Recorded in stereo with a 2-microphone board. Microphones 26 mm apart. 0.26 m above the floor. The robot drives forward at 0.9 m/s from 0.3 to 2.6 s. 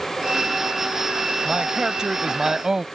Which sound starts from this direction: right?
A man speaking, at 1.4 s.